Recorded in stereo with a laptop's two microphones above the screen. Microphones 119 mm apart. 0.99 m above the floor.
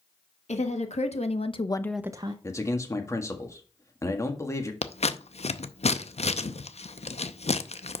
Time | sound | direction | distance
0.5 | a woman speaking | 75° left (ahead or behind) | 1.9 m
2.4 | a man speaking | 25° left (ahead or behind) | 1.7 m
4.8 | scissors | 65° left (ahead or behind) | 0.6 m